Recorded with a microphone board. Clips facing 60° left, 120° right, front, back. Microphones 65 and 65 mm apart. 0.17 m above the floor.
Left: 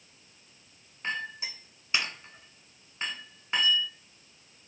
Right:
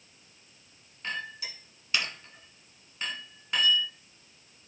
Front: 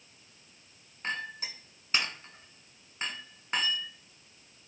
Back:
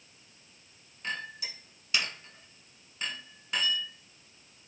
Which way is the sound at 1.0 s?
10° left.